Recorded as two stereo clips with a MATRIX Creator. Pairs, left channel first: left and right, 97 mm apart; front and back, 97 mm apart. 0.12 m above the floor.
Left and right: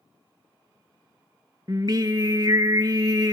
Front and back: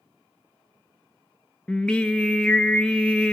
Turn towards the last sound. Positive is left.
turn(degrees=-75)